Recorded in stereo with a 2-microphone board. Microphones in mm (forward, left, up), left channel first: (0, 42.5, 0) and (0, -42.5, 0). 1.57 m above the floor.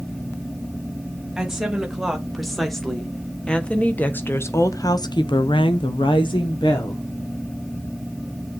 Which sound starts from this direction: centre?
A woman speaking, at 1.4 s.